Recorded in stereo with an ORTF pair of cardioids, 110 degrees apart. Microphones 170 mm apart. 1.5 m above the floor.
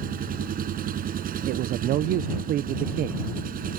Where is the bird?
I don't hear a bird.